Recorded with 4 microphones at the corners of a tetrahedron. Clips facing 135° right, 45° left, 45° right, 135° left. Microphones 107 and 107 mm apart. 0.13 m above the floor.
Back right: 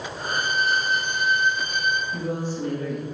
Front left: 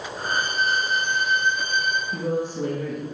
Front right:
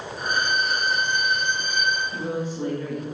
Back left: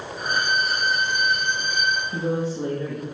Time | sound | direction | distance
0.2 | a violin | 50° left | 2.5 m
2.1 | a woman speaking | 80° left | 2.5 m